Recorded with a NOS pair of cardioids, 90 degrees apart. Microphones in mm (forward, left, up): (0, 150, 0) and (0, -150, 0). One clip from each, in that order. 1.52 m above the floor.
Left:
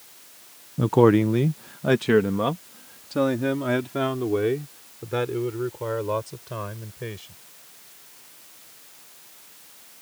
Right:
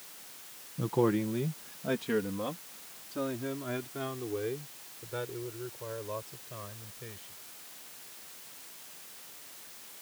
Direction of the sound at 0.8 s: 55° left.